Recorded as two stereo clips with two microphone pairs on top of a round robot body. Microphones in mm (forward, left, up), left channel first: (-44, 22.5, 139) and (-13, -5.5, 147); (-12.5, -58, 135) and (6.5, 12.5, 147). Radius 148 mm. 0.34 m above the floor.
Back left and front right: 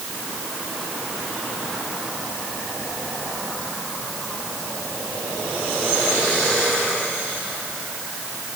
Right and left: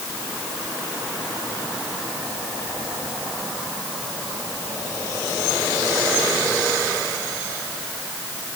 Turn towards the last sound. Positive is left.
No sound to turn to.